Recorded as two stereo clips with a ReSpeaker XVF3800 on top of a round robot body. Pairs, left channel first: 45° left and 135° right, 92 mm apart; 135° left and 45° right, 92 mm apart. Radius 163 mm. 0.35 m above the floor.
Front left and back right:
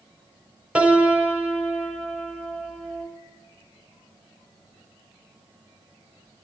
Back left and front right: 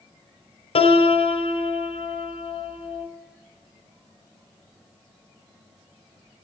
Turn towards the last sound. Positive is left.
turn(degrees=145)